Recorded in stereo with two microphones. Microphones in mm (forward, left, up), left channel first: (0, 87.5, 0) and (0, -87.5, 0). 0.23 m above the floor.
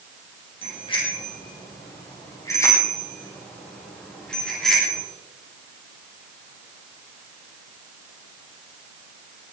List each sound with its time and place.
0.6 s a bicycle bell: 30° left (ahead or behind), 6.5 m; by 5.0 s centre (ahead or behind), 6.5 m